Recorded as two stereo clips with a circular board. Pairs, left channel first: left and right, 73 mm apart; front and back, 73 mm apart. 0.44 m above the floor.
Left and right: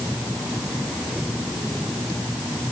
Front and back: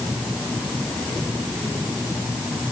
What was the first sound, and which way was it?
Only background noise.